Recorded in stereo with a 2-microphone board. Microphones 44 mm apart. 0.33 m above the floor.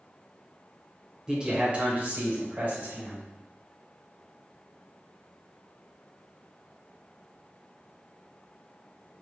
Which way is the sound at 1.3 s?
15° right (ahead or behind).